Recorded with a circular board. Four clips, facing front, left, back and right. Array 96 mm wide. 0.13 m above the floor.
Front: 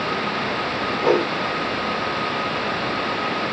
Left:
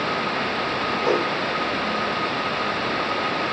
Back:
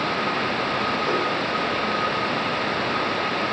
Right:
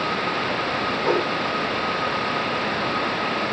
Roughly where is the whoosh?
Ahead.